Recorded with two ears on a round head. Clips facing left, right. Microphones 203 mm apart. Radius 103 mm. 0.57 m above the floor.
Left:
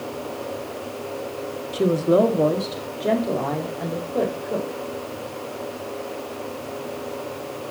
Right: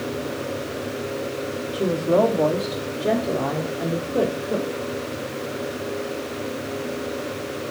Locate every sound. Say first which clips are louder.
1.7 s a woman speaking: left 2 dB; 30° left (ahead or behind), 1.2 m; by 4.8 s 25° right (ahead or behind), 2 m